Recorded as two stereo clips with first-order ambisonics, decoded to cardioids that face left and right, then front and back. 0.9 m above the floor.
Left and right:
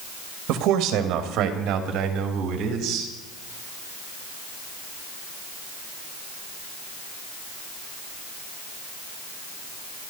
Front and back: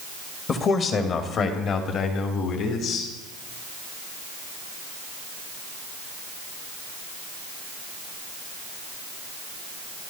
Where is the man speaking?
60° right, 1.8 m; by 3.1 s 45° right, 4 m.